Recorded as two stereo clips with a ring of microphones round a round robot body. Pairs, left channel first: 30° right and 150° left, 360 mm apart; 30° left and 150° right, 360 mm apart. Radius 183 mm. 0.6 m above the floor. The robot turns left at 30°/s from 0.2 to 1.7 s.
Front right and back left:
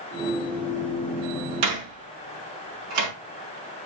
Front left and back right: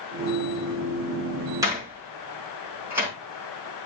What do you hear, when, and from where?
1.6 s a door slam: 130° left, 5 m; by 3.1 s 125° left, 5 m